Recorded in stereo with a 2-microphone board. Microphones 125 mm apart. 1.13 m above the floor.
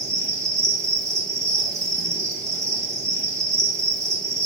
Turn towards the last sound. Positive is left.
turn(degrees=-25)  # may be behind; listen again after turning